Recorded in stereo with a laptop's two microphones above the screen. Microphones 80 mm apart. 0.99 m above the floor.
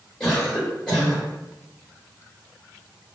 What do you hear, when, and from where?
0.2 s a cough: 10° left (ahead or behind), 1.4 m